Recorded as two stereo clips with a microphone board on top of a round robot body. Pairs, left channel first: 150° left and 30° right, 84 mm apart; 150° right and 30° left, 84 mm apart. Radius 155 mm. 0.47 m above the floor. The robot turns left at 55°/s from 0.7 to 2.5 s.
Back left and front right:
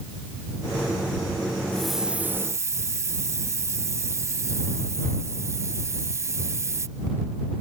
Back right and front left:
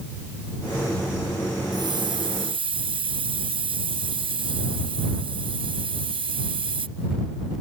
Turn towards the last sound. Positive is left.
turn(degrees=25)